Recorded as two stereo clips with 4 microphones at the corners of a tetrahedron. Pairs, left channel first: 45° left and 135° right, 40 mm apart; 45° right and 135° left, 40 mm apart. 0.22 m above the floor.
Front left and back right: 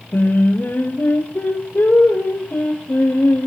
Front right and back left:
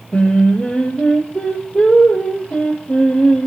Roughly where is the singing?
Ahead.